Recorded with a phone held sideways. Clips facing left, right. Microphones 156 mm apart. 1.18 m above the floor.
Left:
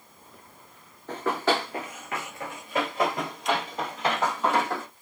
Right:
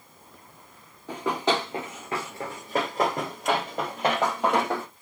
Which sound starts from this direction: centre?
Running footsteps, at 1.1 s.